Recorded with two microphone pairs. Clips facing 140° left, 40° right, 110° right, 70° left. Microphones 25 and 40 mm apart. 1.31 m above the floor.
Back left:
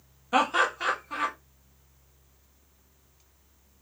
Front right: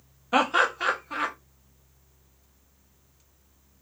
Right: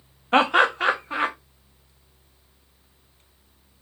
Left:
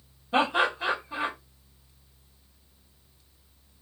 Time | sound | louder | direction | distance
0.3 | laughter | front right 2 dB, right 6 dB | 120° right | 0.6 m